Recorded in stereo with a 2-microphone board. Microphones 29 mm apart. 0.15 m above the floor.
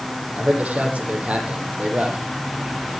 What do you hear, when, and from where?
0.4 s a man speaking: 60° right (ahead or behind), 7 m